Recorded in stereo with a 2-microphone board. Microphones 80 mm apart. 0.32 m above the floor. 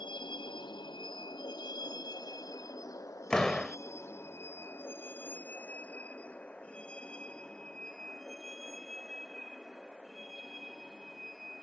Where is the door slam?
10° left (ahead or behind).